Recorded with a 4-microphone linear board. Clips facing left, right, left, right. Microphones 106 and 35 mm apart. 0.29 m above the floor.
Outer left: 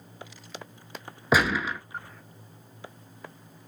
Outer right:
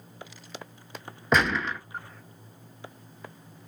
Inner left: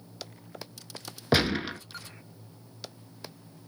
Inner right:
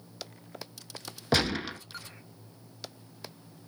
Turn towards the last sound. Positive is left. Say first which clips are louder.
# outer left 1 dB, inner left 2 dB
turn(degrees=5)  # may be behind; listen again after turning